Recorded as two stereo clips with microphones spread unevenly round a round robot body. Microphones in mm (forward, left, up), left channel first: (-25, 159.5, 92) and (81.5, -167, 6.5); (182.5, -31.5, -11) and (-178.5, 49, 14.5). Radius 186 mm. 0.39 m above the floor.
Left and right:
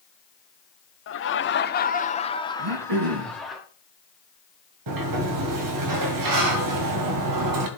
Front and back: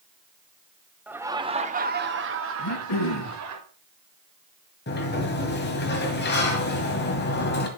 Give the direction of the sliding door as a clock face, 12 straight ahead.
2 o'clock.